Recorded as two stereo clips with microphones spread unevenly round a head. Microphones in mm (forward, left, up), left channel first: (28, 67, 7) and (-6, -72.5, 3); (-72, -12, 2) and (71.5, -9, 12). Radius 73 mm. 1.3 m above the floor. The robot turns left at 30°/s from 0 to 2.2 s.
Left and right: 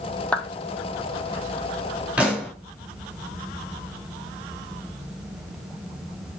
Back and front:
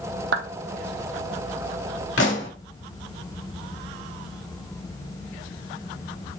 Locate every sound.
0.3 s a clap: 5° right, 1.2 m; by 0.5 s 10° right, 1.2 m
2.2 s a pop: 175° left, 3.5 m